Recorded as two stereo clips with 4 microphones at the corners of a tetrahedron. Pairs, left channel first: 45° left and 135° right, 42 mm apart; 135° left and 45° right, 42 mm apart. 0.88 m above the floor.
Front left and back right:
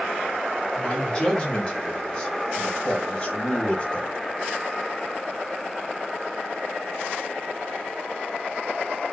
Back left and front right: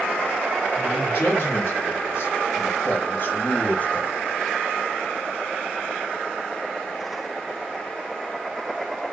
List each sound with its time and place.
0.8 s a man speaking: 100° left, 2.5 m; by 4.1 s 90° left, 0.7 m